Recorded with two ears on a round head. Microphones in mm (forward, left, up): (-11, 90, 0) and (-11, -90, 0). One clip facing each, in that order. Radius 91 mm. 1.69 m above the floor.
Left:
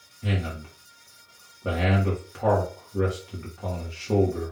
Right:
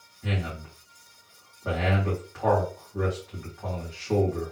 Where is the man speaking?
40° left (ahead or behind), 2 m.